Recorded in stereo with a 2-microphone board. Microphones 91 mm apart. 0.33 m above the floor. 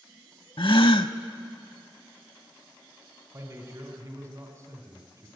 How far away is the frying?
I don't hear frying.